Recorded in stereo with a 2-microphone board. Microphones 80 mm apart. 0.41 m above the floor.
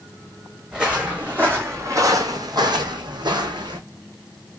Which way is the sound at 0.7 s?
10° right (ahead or behind).